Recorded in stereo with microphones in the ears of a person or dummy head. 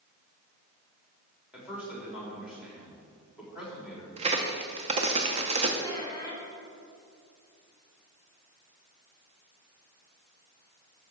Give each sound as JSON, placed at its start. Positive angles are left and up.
{"t": 1.5, "sound": "a man speaking", "side_deg": -5, "distance_m": 3.5}
{"t": 4.2, "sound": "a crack", "side_deg": -30, "distance_m": 0.9}
{"t": 5.8, "sound": "a squeak", "side_deg": 20, "distance_m": 1.8}